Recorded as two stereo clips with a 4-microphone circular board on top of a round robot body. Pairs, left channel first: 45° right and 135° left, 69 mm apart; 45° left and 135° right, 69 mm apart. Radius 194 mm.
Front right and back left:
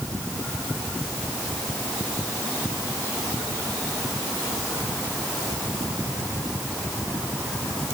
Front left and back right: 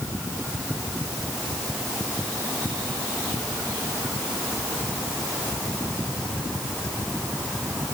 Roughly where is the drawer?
I don't hear a drawer.